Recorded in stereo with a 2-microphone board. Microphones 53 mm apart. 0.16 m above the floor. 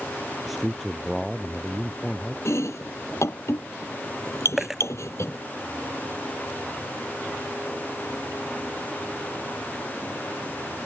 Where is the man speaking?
5° right (ahead or behind); by 2.4 s 15° left (ahead or behind).